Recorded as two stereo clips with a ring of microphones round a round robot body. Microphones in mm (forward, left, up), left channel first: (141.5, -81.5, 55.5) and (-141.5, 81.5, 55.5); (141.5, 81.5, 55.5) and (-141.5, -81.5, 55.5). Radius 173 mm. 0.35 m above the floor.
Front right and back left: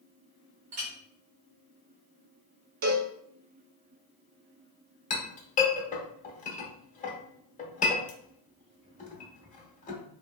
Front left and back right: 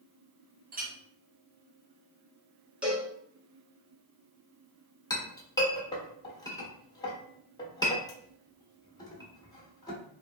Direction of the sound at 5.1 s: 30° right.